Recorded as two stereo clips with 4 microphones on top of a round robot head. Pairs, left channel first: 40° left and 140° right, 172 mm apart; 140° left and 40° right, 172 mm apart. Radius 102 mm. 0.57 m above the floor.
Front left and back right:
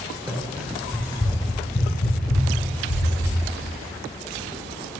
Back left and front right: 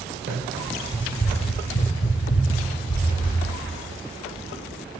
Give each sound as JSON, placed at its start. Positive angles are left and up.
{"t": 0.3, "sound": "running footsteps", "azimuth_deg": -70, "distance_m": 0.7}